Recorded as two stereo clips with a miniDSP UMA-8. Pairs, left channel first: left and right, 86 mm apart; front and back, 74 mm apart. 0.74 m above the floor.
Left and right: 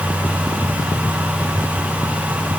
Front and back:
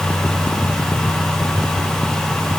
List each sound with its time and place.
Only background noise.